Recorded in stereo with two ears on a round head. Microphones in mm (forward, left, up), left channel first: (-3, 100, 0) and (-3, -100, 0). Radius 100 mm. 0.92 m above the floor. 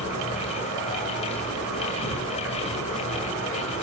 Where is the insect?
55° right (ahead or behind), 1.2 m.